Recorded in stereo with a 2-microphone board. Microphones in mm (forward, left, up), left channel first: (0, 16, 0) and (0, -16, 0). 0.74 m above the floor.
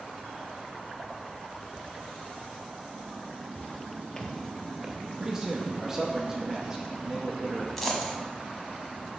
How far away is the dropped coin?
About 1.1 m.